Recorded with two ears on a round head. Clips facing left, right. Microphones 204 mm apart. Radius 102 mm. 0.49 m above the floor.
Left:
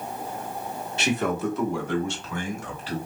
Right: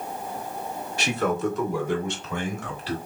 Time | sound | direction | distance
1.0 | a man speaking | 20° left (ahead or behind) | 1.0 m